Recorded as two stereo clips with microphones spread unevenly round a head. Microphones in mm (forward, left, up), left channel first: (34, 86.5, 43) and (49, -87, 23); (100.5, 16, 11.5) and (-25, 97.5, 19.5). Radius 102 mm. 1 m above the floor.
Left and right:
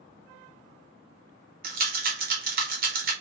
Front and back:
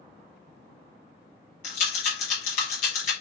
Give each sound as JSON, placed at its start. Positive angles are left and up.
{"t": 1.6, "sound": "a rattle", "azimuth_deg": -75, "distance_m": 1.0}